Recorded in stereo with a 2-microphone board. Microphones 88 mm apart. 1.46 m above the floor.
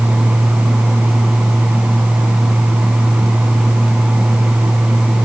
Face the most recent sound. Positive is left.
No sound to turn to.